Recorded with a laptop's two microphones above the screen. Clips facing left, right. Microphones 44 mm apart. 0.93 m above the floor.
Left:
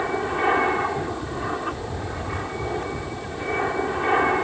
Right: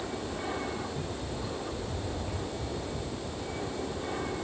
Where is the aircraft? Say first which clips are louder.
Left 13 dB; 55° left (ahead or behind); by 4.5 s 60° left (ahead or behind).